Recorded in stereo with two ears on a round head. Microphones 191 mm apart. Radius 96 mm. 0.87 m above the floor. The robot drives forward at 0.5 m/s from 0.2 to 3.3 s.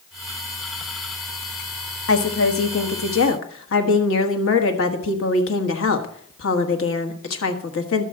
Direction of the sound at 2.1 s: 65° left (ahead or behind).